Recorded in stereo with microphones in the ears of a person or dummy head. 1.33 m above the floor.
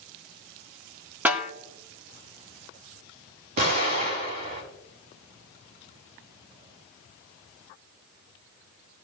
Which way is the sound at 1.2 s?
5° right (ahead or behind).